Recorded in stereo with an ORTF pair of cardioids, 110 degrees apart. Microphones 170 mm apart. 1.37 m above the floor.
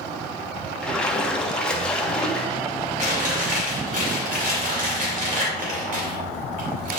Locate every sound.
0.8 s a splash: 5° left, 1.5 m
3.0 s chewing: 50° right, 3 m